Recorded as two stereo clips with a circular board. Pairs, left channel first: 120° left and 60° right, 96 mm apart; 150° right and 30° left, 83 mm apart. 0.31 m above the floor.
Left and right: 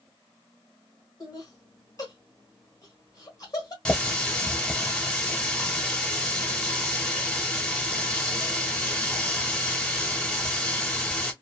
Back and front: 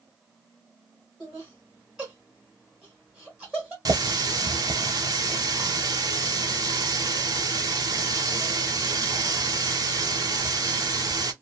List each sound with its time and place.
1.2 s laughter: 115° left, 1.2 m
3.9 s a running tap: 40° left, 0.9 m